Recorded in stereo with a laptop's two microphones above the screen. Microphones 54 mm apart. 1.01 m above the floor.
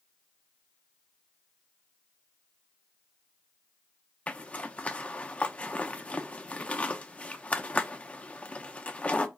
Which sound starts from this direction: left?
A zipper, at 4.3 s.